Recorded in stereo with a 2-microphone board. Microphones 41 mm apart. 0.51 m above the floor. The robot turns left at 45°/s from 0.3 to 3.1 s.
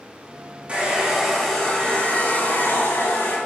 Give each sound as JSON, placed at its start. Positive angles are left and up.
{"t": 0.7, "sound": "a hair dryer", "azimuth_deg": -150, "distance_m": 5.0}